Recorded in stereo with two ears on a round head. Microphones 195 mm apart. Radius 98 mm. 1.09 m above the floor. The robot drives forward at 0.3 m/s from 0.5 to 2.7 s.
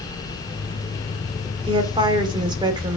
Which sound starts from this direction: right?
A woman speaking, at 1.7 s.